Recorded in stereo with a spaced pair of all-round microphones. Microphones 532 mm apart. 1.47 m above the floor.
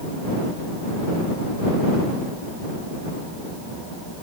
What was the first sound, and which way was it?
Only background noise.